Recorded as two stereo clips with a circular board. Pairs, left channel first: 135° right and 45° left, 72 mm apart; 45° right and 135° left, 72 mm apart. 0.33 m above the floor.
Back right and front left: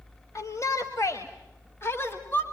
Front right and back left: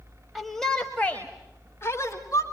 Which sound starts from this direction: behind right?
A shout, at 0.3 s.